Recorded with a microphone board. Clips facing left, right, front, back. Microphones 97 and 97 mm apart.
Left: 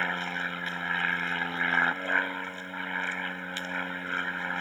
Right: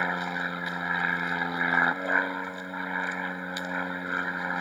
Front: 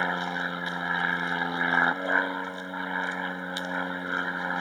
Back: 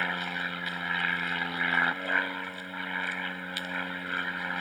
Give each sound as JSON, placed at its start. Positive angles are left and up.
{"t": 0.0, "sound": "an aircraft", "azimuth_deg": -30}